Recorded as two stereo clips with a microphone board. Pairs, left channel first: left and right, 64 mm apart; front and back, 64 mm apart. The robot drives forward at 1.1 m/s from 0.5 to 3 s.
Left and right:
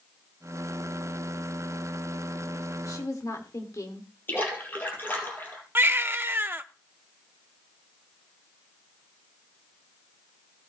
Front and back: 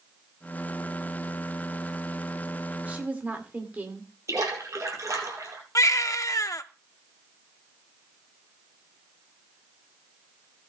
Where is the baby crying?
35° right, 0.6 m.